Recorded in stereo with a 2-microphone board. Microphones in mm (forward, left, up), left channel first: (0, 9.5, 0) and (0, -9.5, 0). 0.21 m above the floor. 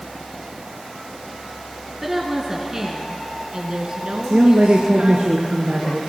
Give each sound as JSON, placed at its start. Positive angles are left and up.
{"t": 2.0, "sound": "a woman speaking", "side_deg": -15, "distance_m": 3.0}
{"t": 4.3, "sound": "a woman speaking", "side_deg": -65, "distance_m": 2.5}